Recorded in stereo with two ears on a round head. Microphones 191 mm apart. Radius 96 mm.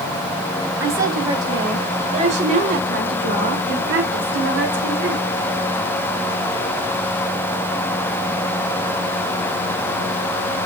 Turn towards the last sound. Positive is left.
turn(degrees=-65)  # may be behind; listen again after turning